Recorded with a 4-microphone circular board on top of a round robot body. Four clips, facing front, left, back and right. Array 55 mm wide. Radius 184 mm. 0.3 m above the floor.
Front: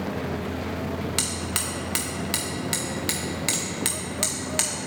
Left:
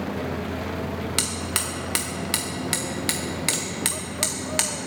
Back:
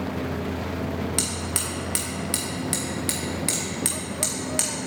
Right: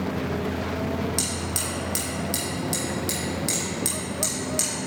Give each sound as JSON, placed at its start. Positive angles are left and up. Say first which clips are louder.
{"t": 1.2, "sound": "hammering", "louder": "left 1 dB, even", "azimuth_deg": 75, "distance_m": 1.5}